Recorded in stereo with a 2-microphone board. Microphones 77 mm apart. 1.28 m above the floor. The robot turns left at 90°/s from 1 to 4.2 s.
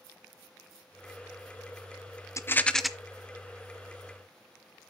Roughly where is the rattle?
Ahead left.